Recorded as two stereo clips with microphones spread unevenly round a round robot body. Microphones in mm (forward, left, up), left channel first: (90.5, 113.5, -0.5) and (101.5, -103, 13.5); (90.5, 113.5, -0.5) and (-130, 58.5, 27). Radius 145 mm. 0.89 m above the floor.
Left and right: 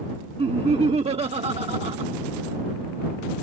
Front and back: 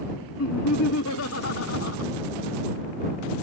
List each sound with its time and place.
0.4 s laughter: 25° right